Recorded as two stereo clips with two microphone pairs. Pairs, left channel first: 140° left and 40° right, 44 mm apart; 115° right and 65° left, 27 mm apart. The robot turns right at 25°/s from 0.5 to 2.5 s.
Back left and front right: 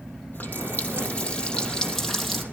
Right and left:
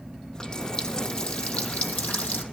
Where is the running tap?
Straight behind, 2.5 m; by 2.4 s 130° right, 2.5 m.